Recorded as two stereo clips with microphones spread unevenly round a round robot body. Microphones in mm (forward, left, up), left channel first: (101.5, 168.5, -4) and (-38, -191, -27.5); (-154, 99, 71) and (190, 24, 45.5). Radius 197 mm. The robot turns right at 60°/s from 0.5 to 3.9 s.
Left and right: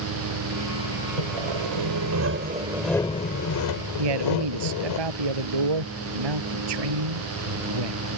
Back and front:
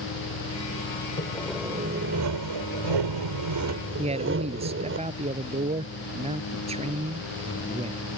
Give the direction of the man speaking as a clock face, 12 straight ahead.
3 o'clock.